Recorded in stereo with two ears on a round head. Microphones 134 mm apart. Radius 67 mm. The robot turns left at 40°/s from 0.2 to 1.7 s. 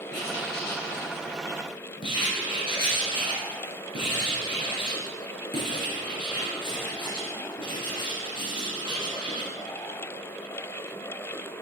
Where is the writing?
95° left, 3 m; by 9.5 s 35° left, 3 m.